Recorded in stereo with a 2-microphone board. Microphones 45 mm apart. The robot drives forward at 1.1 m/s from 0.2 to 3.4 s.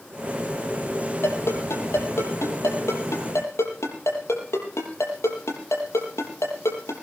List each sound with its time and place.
1.2 s a ringtone: 65° left (ahead or behind), 7 m; by 6.9 s 85° left, 6.5 m